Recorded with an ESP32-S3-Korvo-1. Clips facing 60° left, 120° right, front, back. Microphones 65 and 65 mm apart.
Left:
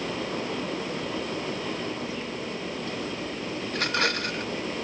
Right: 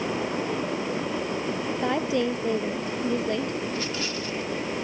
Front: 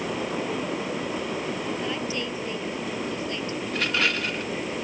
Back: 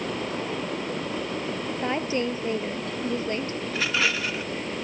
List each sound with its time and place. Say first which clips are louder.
1.8 s a woman speaking: right 8 dB, back 3 dB; 125° right
3.7 s a rattle: left 3 dB, even; 95° left